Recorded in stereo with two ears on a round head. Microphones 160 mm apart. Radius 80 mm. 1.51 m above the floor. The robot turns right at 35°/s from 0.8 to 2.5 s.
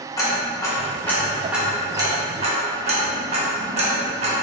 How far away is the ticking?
About 1.0 m.